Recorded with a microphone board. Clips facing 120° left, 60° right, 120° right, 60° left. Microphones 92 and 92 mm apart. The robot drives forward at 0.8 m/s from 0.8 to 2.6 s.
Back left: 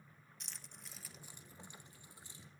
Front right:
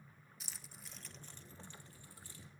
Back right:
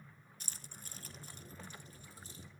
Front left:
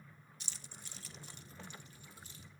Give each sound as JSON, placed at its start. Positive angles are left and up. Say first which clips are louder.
{"t": 0.4, "sound": "keys jangling", "louder": "front right 1 dB, back right 1 dB", "azimuth_deg": -145, "distance_m": 0.5}